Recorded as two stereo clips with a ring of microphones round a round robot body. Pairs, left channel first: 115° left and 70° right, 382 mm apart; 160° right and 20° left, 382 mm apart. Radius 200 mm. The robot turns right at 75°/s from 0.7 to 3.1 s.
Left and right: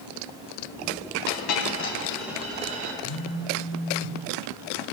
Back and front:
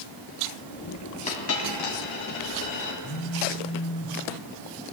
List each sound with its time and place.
1.3 s a dropped coin: 130° left, 2.5 m; by 2.9 s 105° right, 2.5 m
3.0 s a phone buzzing: 145° left, 1.9 m; by 4.2 s 150° left, 1.9 m